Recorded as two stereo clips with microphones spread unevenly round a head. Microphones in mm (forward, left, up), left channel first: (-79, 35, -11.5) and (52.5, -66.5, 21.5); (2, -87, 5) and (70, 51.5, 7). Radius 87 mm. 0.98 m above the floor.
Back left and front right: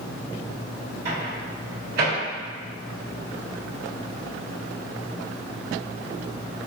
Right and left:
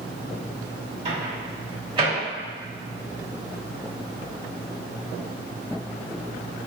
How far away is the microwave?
About 1.6 m.